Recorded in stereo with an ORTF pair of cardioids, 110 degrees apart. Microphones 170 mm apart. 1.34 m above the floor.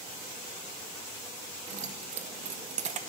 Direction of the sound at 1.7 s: 45° right.